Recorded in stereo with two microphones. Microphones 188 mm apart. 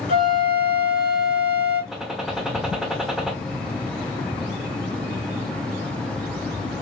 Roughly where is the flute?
Left.